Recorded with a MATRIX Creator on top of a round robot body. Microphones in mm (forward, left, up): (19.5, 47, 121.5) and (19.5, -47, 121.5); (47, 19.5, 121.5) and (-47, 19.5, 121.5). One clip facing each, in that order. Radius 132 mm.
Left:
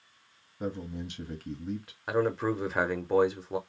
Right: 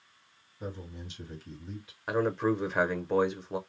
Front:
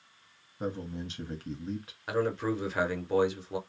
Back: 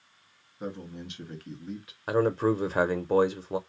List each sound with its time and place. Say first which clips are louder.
0.6 s a man speaking: left 6 dB, front 2 dB; 55° left, 1.4 m
2.1 s a man speaking: even, back 5 dB; 175° left, 0.7 m